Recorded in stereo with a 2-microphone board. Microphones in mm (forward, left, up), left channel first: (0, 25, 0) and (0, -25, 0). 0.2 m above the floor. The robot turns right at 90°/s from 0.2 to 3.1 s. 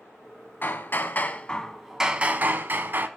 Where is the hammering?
75° left, 1.2 m; by 3.1 s 65° right, 1.2 m.